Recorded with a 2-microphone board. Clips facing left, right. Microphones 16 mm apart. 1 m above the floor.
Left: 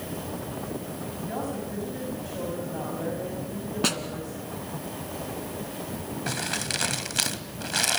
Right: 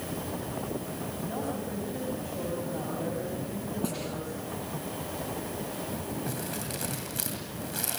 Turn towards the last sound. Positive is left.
turn(degrees=50)  # may be behind; listen again after turning